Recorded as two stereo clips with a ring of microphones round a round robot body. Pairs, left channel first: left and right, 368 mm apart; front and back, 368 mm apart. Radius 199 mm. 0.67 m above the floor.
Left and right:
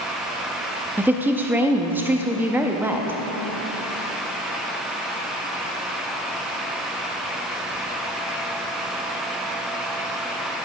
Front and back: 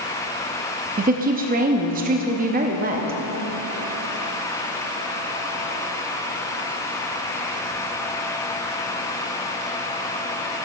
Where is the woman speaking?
165° right, 0.6 m.